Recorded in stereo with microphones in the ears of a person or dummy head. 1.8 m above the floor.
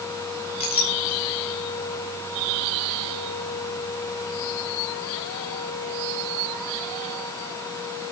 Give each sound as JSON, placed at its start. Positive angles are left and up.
{"t": 0.6, "sound": "a clink", "side_deg": 30, "distance_m": 4.0}